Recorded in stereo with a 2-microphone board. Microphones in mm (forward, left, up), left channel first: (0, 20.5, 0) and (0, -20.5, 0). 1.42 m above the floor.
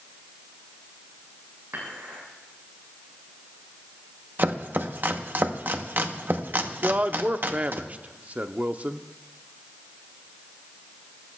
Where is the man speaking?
40° right (ahead or behind), 0.7 m.